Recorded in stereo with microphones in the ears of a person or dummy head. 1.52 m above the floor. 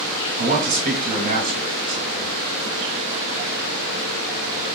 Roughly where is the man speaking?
Right.